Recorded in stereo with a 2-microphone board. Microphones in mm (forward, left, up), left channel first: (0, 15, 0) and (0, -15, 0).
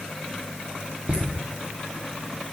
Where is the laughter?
50° right (ahead or behind), 1.3 m.